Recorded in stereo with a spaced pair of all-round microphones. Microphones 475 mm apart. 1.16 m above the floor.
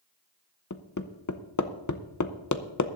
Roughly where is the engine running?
No engine running in this recording.